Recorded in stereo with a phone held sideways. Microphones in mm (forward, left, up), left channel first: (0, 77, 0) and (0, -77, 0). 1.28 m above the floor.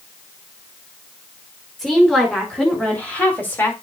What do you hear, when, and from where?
1.8 s a woman speaking: 5° left (ahead or behind), 4.5 m; by 3.7 s 15° left (ahead or behind), 2.5 m